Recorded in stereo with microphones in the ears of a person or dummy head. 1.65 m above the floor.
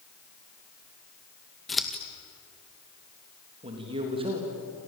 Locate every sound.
1.7 s scissors: 10° left (ahead or behind), 1.9 m
3.6 s a man speaking: 30° right (ahead or behind), 3.5 m